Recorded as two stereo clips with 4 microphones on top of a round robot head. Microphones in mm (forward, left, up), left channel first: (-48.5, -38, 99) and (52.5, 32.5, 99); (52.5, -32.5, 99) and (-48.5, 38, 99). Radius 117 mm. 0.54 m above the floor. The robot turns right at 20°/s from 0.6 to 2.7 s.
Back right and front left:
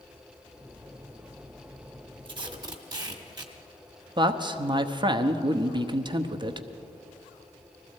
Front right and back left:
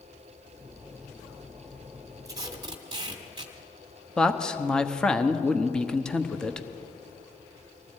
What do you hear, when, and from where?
2.2 s tape being pulled: 85° left, 1.6 m; by 3.5 s 95° left, 1.6 m
4.2 s a man speaking: 45° left, 1.0 m